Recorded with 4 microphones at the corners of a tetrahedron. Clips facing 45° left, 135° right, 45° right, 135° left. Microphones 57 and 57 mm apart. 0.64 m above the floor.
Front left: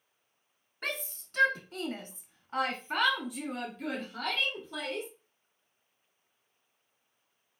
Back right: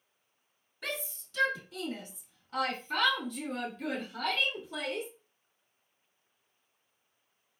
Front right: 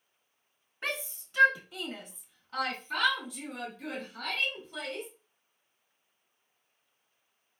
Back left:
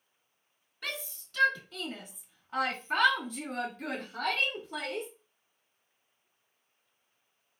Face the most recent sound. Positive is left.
turn(degrees=145)